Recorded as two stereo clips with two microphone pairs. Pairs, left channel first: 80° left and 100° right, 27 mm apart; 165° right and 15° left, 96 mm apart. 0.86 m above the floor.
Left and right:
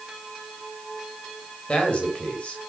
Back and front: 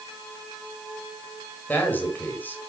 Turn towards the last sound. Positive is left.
turn(degrees=125)